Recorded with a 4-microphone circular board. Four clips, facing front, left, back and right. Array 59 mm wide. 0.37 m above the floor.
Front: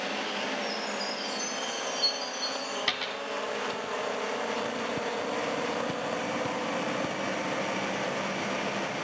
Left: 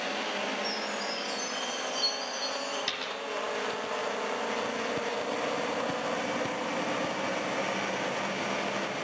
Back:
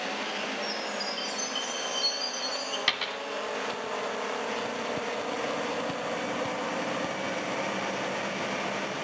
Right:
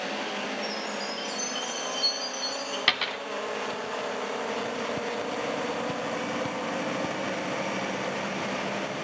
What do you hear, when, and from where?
0.6 s a chime: 175° right, 3 m
2.9 s a dropped coin: 100° right, 0.5 m